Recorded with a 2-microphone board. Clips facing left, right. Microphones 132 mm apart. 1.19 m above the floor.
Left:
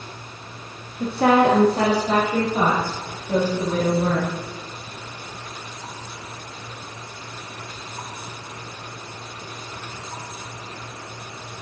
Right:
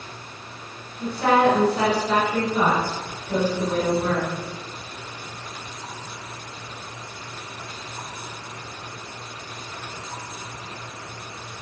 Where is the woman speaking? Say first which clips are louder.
Left 2 dB; 75° left (ahead or behind), 1.3 m; by 4.3 s 25° left (ahead or behind), 4 m.